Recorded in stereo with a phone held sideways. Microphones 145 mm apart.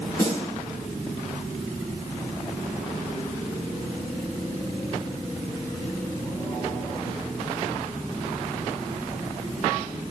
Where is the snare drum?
20° left (ahead or behind), 9 m.